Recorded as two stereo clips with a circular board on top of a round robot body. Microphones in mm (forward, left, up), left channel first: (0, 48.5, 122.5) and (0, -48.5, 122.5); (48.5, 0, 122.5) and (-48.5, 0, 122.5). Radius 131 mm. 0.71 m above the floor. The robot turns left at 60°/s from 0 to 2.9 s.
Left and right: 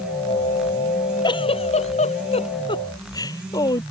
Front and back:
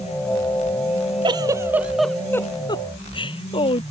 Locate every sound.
1.2 s a giggle: 135° left; by 3.8 s 40° left